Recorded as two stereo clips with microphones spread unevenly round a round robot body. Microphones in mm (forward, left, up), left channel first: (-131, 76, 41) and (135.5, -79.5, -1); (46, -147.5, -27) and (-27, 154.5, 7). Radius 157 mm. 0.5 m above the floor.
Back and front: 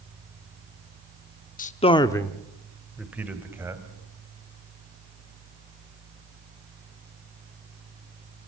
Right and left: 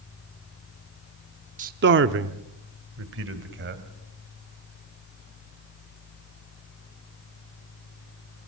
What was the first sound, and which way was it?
A man speaking, 130° left.